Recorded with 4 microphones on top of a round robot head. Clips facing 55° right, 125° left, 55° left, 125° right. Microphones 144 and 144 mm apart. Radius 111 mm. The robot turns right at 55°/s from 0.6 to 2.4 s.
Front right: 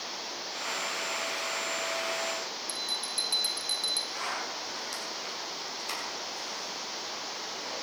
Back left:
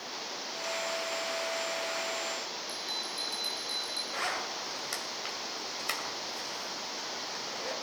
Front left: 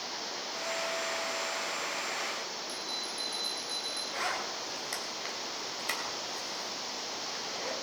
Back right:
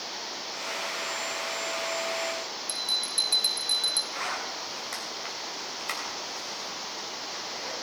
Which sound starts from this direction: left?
A zipper, at 4.1 s.